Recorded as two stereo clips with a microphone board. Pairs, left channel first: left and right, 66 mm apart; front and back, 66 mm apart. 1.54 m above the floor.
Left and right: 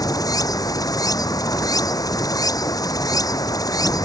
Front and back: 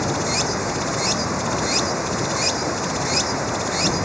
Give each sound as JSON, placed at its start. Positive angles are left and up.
{"t": 0.0, "sound": "running water", "azimuth_deg": 90}